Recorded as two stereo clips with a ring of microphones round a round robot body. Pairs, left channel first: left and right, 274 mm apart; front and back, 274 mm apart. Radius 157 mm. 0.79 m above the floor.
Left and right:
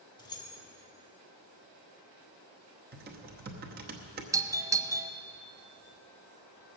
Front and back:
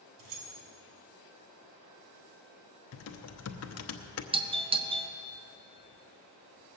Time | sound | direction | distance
0.2 | keys jangling | 165° left | 2 m
2.9 | typing on a keyboard | 30° right | 1.0 m
4.3 | a doorbell | 150° right | 0.8 m